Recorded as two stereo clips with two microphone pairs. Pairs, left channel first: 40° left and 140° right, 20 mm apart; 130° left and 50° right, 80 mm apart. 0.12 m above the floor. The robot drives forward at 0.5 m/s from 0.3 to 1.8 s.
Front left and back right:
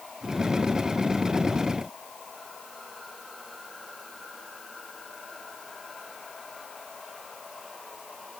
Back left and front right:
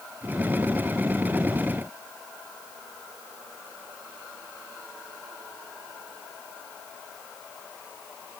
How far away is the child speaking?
I don't hear a child speaking.